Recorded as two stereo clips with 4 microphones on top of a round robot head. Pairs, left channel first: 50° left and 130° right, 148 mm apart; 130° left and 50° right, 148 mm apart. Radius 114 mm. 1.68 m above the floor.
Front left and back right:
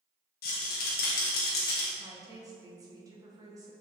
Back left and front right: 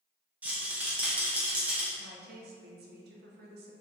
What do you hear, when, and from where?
0.4 s a rattle: 30° left, 0.9 m
2.0 s a woman speaking: 60° right, 1.3 m